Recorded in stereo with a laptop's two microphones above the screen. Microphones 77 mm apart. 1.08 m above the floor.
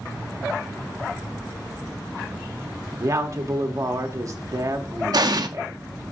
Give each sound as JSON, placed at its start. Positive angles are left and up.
{"t": 3.0, "sound": "a woman speaking", "side_deg": -45, "distance_m": 0.8}
{"t": 5.1, "sound": "an explosion", "side_deg": -60, "distance_m": 0.5}